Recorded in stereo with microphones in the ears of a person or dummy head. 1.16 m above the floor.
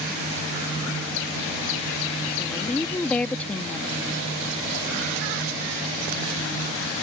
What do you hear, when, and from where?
2.4 s a woman speaking: 5° left (ahead or behind)